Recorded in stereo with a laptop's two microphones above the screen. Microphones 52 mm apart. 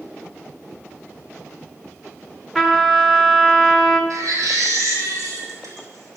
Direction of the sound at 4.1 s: 80° right.